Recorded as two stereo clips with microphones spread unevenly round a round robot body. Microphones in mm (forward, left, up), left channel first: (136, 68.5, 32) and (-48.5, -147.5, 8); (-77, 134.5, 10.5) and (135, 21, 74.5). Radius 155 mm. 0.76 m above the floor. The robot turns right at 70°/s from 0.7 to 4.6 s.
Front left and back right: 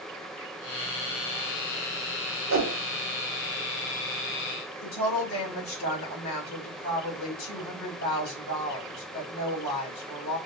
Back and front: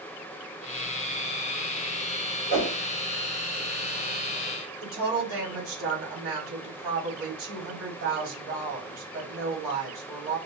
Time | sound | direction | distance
2.5 | a whoosh | 145° right | 4 m
4.8 | a woman speaking | 5° left | 4 m